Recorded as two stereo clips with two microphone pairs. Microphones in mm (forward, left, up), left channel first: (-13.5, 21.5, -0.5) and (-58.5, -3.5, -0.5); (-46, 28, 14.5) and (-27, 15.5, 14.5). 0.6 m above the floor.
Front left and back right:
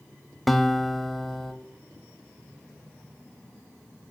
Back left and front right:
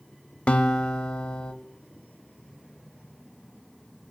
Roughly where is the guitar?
Behind left.